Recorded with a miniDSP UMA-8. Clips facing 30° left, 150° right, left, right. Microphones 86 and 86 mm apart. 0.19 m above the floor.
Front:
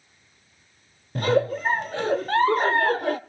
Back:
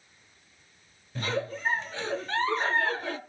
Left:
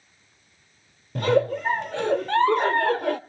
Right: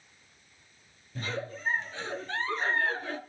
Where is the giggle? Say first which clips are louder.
Front 10 dB, left 16 dB; 65° left, 0.9 m.